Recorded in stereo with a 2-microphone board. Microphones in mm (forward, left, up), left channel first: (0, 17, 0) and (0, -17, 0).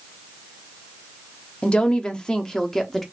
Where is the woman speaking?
35° left (ahead or behind), 0.9 m; by 3.0 s 10° left (ahead or behind), 1.0 m.